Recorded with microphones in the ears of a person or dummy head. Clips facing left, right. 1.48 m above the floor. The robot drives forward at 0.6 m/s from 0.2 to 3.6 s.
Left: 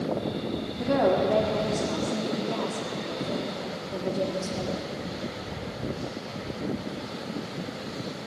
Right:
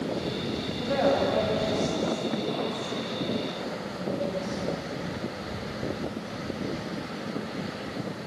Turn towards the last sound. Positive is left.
turn(degrees=85)